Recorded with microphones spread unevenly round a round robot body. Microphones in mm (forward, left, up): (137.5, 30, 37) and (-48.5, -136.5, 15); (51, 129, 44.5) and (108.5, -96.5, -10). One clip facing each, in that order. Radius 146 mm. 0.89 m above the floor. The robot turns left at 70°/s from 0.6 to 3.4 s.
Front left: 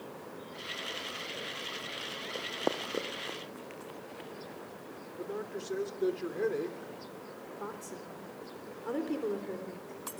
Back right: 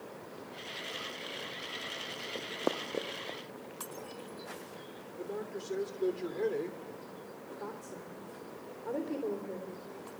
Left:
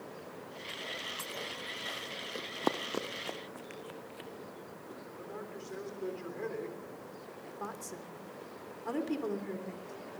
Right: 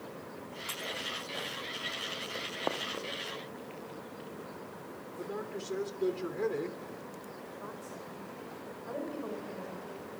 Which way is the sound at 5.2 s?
40° right.